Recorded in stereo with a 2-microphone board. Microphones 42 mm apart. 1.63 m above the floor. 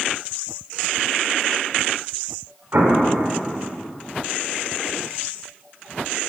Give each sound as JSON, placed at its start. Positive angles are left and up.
{"t": 2.7, "sound": "an explosion", "side_deg": -60, "distance_m": 2.5}